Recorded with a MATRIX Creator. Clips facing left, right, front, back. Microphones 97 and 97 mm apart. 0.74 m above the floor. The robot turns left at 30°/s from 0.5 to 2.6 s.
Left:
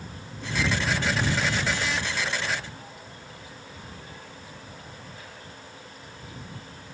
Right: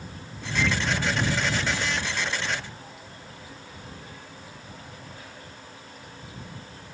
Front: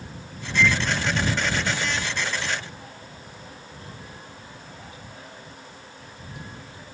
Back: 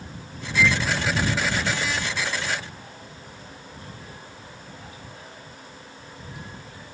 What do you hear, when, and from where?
0.6 s a microwave: 90° right; by 0.8 s 95° right